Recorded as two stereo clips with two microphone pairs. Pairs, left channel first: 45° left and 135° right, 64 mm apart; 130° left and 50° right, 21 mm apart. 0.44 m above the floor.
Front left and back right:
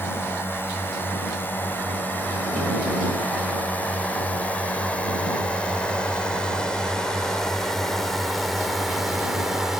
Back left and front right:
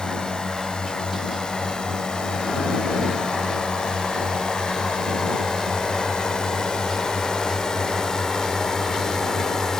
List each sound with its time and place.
0.0 s a drone: 95° left; by 9.8 s 150° left